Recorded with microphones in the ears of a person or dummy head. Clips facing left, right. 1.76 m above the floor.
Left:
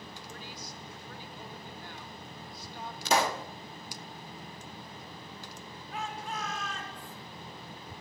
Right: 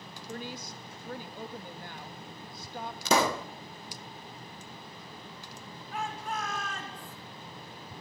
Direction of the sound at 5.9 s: 50° right (ahead or behind).